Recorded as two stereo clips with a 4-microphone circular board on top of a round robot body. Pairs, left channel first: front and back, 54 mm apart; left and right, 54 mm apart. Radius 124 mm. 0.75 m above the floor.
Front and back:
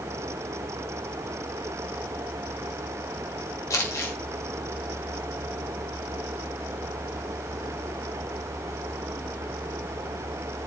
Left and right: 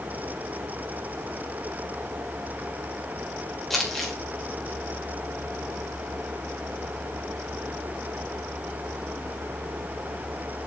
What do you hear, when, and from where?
3.7 s crumpling: 5° left, 3 m